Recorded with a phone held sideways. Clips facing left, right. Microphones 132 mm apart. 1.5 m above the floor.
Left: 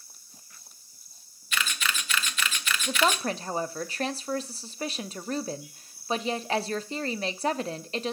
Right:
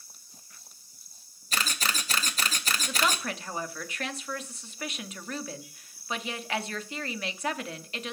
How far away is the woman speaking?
About 0.6 m.